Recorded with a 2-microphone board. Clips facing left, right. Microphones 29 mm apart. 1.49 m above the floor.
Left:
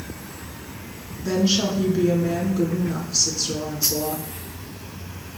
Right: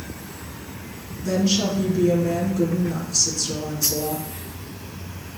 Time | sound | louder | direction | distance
1.2 | a woman speaking | even | 20° left (ahead or behind) | 4.5 m